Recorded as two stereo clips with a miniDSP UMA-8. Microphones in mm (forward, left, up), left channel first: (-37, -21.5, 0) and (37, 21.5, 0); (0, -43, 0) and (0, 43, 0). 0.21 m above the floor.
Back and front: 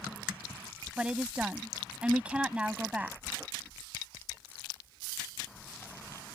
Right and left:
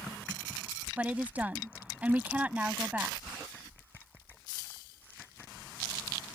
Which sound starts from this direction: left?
A woman speaking, at 1.0 s.